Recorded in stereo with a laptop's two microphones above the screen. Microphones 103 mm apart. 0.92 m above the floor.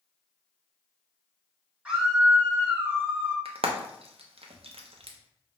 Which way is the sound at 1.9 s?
15° right (ahead or behind).